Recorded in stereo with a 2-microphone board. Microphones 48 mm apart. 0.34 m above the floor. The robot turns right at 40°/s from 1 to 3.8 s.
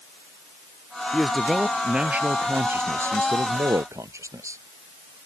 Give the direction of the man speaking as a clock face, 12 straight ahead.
7 o'clock.